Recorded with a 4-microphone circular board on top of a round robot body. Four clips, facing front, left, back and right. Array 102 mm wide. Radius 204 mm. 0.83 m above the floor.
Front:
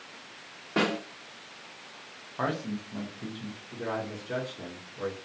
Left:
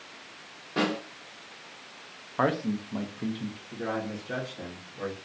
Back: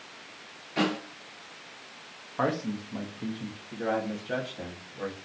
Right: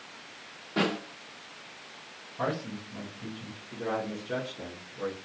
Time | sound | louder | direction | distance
0.8 | a snare drum | left 1 dB, front 1 dB | straight ahead | 0.9 m
2.4 | a man speaking | left 6 dB, back 2 dB | 110° left | 0.6 m
3.7 | a man speaking | right 1 dB, back 4 dB | 150° left | 1.3 m